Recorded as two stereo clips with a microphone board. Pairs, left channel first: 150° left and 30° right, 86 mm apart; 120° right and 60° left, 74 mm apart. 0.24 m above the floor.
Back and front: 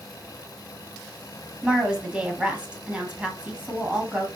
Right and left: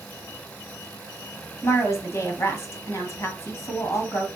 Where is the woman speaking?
105° right, 1.6 m.